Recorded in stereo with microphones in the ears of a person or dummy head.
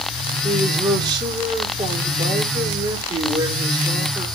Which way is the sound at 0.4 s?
30° right (ahead or behind).